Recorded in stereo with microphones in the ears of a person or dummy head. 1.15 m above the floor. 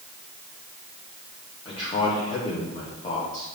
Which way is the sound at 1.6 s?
30° left (ahead or behind).